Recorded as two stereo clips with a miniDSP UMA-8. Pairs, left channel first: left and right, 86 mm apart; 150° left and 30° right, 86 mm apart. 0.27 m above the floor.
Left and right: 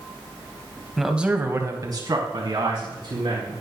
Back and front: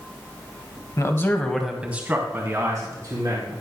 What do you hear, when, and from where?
1.0 s a man speaking: straight behind, 1.4 m; by 3.5 s 70° right, 3.5 m